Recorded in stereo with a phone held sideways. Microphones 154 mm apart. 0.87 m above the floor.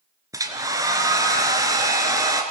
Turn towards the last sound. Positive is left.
turn(degrees=-20)  # may be behind; listen again after turning